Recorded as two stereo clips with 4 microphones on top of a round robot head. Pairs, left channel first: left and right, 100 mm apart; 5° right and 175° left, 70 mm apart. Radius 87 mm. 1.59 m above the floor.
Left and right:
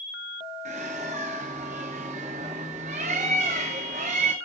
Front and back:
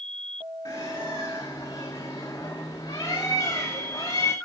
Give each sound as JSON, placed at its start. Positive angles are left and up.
{"t": 0.7, "sound": "a bird", "azimuth_deg": -70, "distance_m": 1.6}